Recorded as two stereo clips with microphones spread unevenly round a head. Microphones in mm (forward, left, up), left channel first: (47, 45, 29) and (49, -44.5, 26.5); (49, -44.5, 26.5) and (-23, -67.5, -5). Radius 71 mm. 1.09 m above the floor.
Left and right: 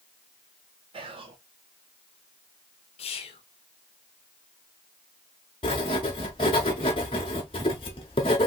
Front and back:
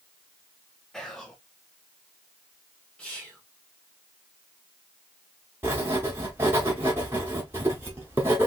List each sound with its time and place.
0.9 s whispering: 75° right, 0.7 m
3.0 s whispering: 105° left, 0.9 m
5.6 s writing: 110° left, 1.0 m